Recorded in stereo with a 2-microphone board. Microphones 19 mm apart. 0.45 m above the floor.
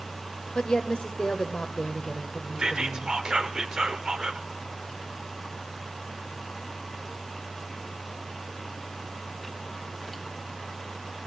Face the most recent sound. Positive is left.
turn(degrees=-45)  # may be behind; listen again after turning